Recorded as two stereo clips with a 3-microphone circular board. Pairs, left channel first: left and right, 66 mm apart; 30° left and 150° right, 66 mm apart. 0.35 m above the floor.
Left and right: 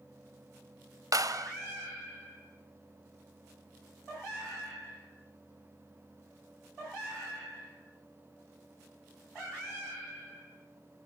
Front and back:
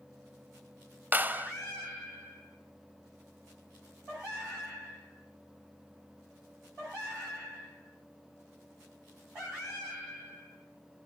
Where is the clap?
95° right, 1.2 m.